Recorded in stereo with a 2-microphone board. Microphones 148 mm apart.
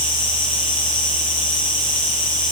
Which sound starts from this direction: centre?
An insect, at 0.0 s.